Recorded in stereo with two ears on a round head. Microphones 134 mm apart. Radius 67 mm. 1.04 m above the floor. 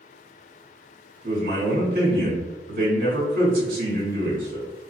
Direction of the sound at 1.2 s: 65° right (ahead or behind).